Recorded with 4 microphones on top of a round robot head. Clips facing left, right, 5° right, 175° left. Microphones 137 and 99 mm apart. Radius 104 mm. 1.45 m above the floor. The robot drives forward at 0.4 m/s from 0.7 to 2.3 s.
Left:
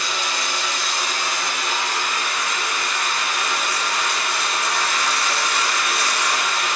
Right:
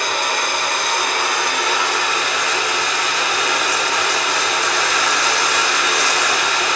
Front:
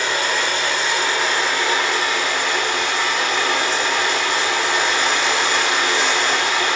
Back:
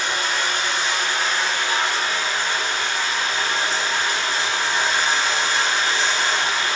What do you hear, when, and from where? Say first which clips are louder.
0.0 s running water: right 6 dB, front 3 dB; 35° right, 2.5 m; by 6.8 s 50° right, 2.0 m